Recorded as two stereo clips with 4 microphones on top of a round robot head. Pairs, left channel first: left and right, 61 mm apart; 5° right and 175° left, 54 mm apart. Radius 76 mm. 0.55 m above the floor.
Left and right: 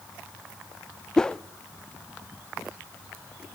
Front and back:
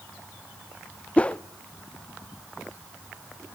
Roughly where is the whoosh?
Ahead left.